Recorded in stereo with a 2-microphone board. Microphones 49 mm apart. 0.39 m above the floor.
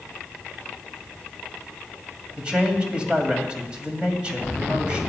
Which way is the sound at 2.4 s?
20° right (ahead or behind).